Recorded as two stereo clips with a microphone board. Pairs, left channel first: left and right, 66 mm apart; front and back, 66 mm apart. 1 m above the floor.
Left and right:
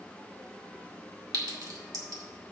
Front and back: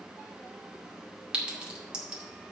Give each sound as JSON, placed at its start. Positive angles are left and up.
{"t": 1.3, "sound": "a clink", "azimuth_deg": -105, "distance_m": 2.0}